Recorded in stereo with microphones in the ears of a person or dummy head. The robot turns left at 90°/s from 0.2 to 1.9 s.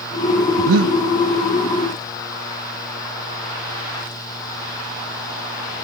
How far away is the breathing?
About 1.2 m.